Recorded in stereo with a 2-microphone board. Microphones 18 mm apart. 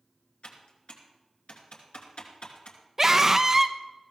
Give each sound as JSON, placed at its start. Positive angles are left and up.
{"t": 0.4, "sound": "typing on a keyboard", "side_deg": 80, "distance_m": 2.5}
{"t": 3.0, "sound": "a scream", "side_deg": -25, "distance_m": 0.8}